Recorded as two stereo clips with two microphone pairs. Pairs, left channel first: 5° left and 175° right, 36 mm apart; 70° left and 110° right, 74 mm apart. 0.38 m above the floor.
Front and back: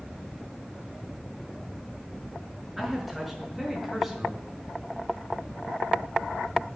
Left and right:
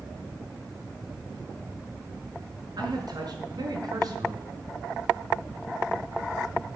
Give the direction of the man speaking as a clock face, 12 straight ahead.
3 o'clock.